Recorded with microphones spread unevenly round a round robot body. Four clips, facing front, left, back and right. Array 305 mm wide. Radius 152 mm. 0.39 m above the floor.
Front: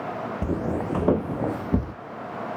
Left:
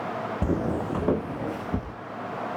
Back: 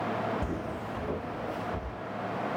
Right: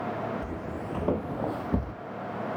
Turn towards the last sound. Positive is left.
turn(degrees=-10)